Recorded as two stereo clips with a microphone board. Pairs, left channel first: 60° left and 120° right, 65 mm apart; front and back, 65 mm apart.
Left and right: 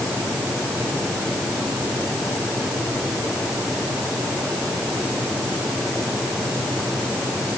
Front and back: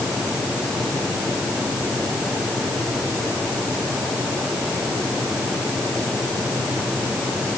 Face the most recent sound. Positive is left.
No sound to turn to.